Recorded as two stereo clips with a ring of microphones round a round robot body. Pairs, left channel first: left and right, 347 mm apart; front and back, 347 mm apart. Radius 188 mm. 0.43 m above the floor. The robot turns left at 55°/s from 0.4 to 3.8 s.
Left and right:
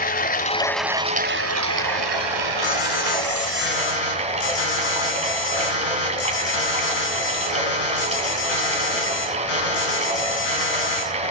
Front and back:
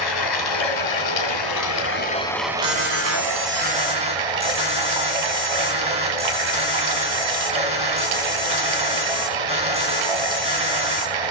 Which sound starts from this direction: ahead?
Running water, at 0.0 s.